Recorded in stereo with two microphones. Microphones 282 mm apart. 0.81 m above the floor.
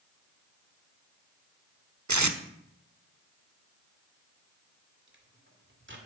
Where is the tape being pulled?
80° right, 1.0 m.